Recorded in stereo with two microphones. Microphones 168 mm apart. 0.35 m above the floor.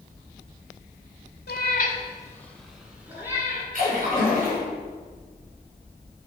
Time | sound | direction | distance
1.5 | a cat meowing | 75° left (ahead or behind) | 1.1 m
3.7 | a splash | 60° right (ahead or behind) | 3 m